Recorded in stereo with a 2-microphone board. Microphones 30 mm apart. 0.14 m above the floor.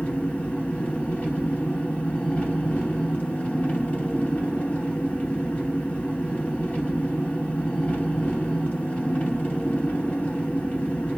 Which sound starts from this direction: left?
An engine running, at 0.0 s.